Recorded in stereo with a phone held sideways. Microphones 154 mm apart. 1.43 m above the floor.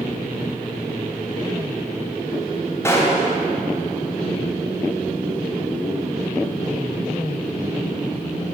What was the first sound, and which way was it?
A gunshot, 15° left (ahead or behind).